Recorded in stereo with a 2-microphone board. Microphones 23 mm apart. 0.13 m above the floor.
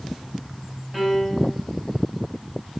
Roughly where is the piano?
Centre.